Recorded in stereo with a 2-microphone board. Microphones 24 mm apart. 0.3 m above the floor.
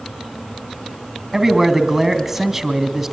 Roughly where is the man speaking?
Centre.